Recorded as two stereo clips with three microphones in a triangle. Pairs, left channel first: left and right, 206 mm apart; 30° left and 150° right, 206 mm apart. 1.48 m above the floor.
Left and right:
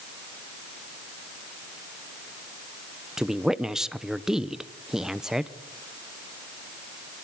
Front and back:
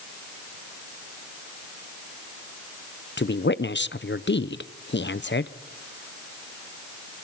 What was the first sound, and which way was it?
A woman speaking, straight ahead.